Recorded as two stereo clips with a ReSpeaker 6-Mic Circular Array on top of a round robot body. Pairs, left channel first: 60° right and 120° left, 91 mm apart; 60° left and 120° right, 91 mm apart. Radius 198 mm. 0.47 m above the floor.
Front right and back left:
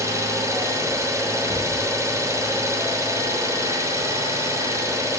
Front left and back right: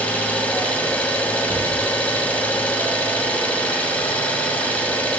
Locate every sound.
0.0 s an engine running: 120° left, 0.9 m